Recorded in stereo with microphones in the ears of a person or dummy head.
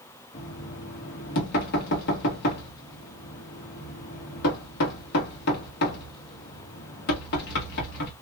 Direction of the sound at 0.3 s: 55° left (ahead or behind).